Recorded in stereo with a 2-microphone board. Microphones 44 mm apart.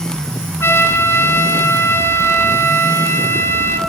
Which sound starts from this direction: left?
A trumpet, at 0.6 s.